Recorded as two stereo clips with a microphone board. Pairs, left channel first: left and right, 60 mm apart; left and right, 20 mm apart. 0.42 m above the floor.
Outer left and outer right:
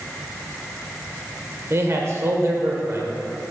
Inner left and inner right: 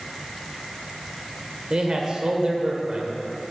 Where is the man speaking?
45° right (ahead or behind), 1.4 m.